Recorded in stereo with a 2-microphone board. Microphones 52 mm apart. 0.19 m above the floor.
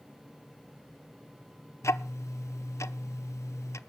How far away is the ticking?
About 0.6 m.